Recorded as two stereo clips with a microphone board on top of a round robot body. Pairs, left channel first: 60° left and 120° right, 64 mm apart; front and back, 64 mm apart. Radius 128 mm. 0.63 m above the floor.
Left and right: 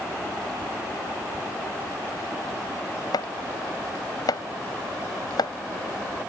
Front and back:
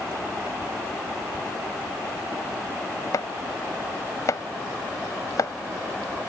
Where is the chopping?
40° left.